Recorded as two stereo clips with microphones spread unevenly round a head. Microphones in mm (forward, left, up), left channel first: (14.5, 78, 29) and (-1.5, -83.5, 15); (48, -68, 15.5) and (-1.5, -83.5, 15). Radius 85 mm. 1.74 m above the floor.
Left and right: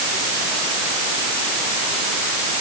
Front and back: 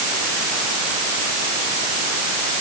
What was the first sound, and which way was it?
Only background noise.